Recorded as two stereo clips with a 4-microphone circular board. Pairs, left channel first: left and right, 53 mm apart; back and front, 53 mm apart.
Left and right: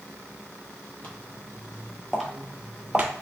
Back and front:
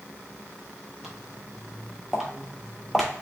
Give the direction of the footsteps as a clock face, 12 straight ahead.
9 o'clock.